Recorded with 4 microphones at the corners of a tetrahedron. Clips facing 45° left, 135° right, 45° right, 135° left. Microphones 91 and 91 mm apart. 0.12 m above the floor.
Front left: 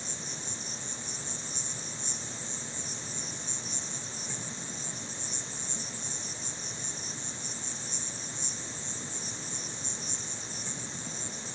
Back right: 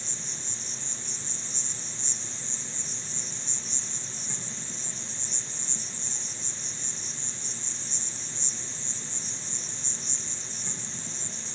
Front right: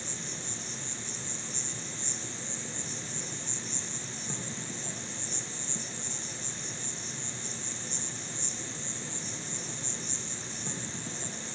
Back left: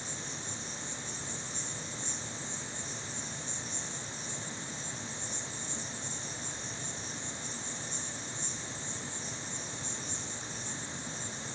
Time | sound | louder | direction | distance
0.0 | an insect | front left 2 dB, front right 1 dB | 40° right | 0.9 m